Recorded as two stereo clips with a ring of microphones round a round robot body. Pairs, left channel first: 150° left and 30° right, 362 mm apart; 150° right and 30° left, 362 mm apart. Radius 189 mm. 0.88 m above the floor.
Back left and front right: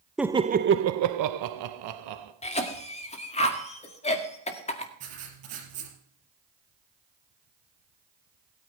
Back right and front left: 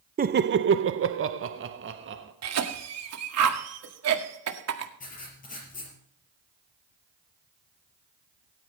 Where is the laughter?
60° left, 0.5 m; by 2.3 s 25° right, 1.3 m.